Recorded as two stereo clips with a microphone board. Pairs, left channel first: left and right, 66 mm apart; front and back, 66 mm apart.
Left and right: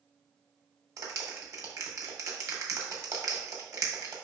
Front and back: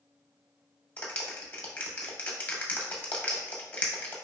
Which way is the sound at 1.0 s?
65° right.